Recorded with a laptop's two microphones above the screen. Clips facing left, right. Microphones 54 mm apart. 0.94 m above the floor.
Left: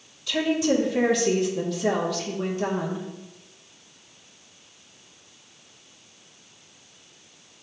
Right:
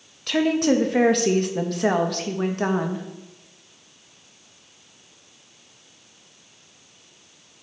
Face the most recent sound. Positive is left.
turn(degrees=-55)  # may be behind; listen again after turning